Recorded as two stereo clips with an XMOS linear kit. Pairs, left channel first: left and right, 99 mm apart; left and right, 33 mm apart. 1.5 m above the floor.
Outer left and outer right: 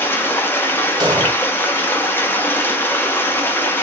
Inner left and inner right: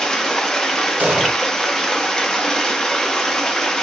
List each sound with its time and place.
0.0 s running water: 20° left (ahead or behind), 0.8 m
1.0 s an explosion: 45° right (ahead or behind), 0.8 m